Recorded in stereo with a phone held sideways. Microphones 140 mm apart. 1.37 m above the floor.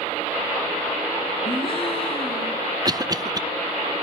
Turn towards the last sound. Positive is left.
turn(degrees=-25)  # may be behind; listen again after turning